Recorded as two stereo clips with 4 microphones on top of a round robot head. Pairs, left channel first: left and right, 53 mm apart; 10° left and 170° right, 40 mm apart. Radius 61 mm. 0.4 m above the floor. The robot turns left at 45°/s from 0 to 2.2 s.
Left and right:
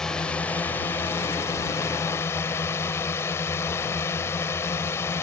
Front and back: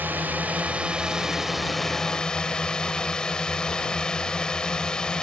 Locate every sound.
0.0 s a drone: 170° left; by 5.2 s 75° left